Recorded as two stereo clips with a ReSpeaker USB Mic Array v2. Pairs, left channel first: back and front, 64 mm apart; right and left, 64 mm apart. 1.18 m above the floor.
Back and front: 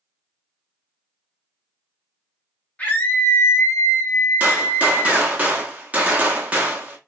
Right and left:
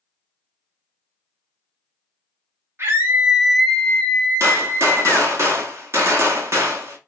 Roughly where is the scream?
Behind left.